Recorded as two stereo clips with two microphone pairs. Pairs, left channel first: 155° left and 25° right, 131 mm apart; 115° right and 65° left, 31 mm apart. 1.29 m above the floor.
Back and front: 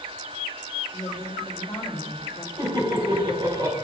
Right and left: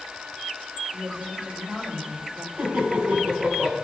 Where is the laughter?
30° left, 5 m.